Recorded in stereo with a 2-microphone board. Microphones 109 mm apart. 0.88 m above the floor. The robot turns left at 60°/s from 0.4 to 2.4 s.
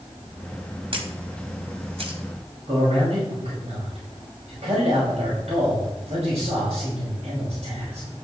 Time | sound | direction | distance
0.9 | a camera shutter | 55° right (ahead or behind) | 2 m
2.7 | a man speaking | 80° right | 6 m